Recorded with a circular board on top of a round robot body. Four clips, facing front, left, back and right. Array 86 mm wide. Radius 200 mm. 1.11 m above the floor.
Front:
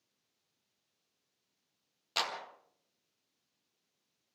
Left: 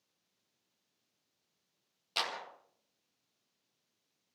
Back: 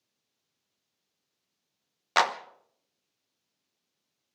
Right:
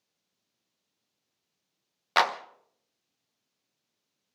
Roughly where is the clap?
Behind right.